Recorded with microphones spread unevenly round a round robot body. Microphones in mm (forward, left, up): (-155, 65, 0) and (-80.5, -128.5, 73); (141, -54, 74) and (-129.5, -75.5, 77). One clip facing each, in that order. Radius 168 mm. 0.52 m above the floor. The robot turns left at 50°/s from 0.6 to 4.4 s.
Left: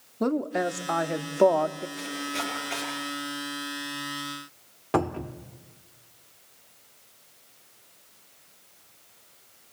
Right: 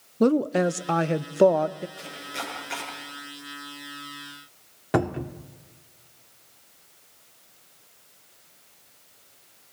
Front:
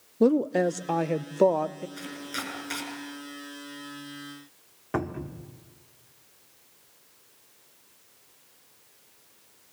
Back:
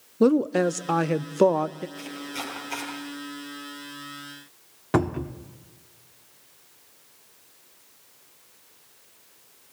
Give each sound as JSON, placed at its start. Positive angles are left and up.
{"t": 0.2, "sound": "a woman speaking", "azimuth_deg": -115, "distance_m": 0.7}
{"t": 2.0, "sound": "chopping", "azimuth_deg": 35, "distance_m": 6.5}
{"t": 4.9, "sound": "a cupboard door", "azimuth_deg": -155, "distance_m": 1.2}